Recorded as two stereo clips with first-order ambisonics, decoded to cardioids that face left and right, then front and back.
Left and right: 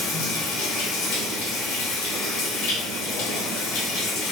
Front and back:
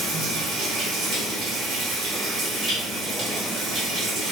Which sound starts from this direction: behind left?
Running water, at 0.0 s.